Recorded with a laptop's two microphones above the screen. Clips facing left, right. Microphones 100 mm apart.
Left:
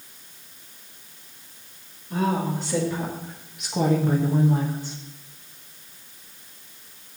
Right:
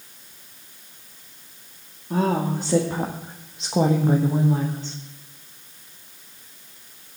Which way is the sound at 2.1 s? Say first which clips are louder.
Right 2 dB; 55° right (ahead or behind).